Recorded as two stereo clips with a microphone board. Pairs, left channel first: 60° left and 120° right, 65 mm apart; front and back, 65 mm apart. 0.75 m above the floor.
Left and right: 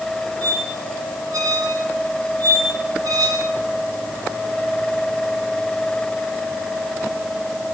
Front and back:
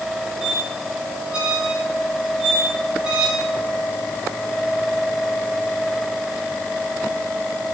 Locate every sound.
0.4 s a squeak: 105° right, 2 m